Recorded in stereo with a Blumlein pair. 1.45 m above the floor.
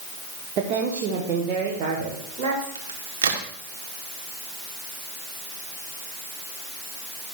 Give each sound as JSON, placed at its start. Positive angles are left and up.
{"t": 0.6, "sound": "a woman speaking", "azimuth_deg": -40, "distance_m": 1.1}
{"t": 2.8, "sound": "a crack", "azimuth_deg": -60, "distance_m": 1.3}